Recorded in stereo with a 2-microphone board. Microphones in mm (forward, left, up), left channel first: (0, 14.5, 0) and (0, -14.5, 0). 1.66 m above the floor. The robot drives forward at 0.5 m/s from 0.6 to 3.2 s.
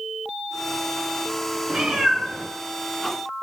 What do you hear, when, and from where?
1.7 s a cat meowing: 40° right (ahead or behind), 1.7 m; by 3.4 s 35° right (ahead or behind), 2.0 m